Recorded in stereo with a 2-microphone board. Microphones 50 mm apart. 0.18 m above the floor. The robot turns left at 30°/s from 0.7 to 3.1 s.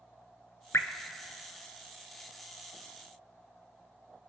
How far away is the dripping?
About 0.9 m.